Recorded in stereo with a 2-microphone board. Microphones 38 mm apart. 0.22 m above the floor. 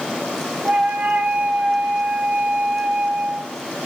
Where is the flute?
45° right (ahead or behind), 0.6 m.